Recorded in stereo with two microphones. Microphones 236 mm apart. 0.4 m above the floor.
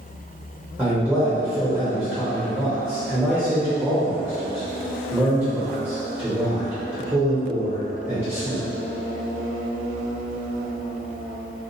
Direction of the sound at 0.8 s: 5° right (ahead or behind).